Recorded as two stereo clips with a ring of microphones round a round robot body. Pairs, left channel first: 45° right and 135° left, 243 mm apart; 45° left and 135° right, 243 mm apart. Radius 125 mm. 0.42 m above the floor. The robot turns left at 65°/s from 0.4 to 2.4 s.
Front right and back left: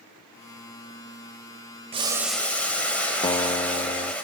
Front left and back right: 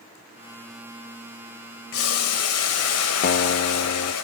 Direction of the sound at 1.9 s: 70° left.